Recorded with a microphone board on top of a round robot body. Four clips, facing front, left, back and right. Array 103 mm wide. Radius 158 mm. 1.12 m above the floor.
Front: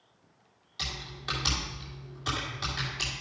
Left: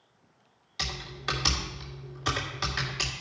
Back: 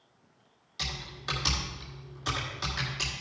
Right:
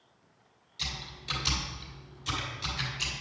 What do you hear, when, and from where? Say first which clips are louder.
0.8 s typing on a keyboard: left 7 dB, even; 95° left, 2 m